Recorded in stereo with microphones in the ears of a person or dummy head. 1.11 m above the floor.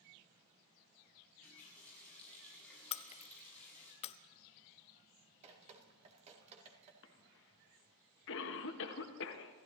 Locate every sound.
1.2 s a running tap: 15° left (ahead or behind), 6 m
2.9 s breaking glass: 30° left (ahead or behind), 0.6 m
5.4 s dripping: 35° right (ahead or behind), 2.0 m
7.0 s a cough: 65° left (ahead or behind), 1.6 m